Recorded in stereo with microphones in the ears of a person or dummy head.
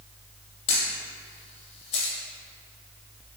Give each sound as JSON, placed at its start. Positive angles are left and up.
{"t": 0.7, "sound": "a camera shutter", "side_deg": 35, "distance_m": 1.8}